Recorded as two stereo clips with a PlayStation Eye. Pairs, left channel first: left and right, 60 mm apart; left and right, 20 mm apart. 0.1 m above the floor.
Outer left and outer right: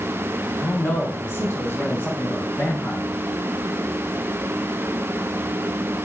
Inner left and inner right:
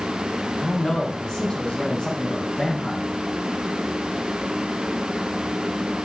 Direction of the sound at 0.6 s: 40° left (ahead or behind).